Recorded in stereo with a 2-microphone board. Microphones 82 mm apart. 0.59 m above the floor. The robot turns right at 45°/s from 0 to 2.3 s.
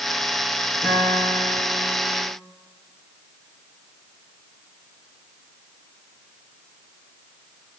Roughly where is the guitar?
Behind left.